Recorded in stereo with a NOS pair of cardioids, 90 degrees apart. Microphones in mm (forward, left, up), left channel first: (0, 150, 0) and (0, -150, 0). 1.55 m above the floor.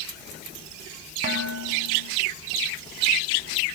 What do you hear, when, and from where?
1.2 s dishes clattering: 45° right, 7 m